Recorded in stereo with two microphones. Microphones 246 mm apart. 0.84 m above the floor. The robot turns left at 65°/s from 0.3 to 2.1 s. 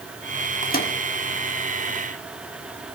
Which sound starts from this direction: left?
A microwave, at 0.6 s.